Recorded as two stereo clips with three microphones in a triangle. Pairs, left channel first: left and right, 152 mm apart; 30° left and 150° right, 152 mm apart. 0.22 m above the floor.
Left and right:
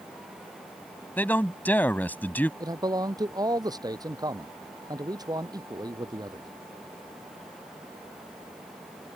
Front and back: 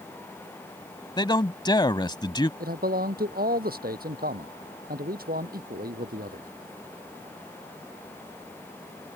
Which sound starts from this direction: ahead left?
A man speaking, at 1.2 s.